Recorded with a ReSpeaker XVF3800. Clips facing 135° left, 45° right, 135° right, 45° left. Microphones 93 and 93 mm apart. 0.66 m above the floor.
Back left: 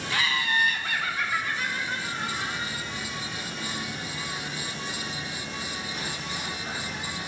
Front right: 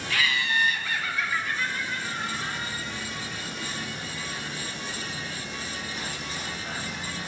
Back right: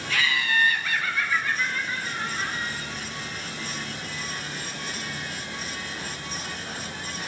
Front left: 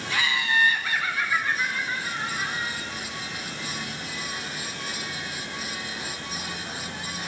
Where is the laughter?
95° left, 0.6 m; by 2.8 s 115° left, 2.5 m.